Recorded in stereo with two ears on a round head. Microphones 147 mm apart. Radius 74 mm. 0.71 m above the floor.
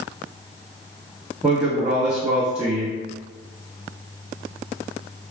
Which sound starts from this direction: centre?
A man speaking, at 1.4 s.